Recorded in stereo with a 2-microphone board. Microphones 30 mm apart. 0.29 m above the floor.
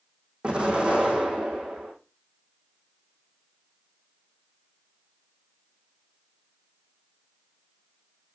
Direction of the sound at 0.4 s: 35° right (ahead or behind).